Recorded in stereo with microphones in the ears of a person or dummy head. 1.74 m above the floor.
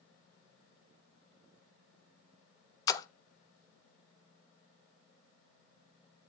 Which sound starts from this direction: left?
A splash, at 2.9 s.